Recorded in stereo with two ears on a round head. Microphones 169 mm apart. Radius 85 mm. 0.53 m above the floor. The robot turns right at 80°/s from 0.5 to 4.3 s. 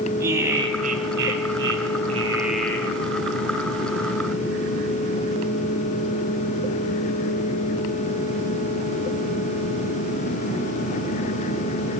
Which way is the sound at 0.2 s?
165° right.